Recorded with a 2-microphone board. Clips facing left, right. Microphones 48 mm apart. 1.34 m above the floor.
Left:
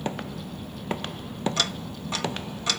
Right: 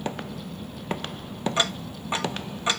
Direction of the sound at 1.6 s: 20° right (ahead or behind).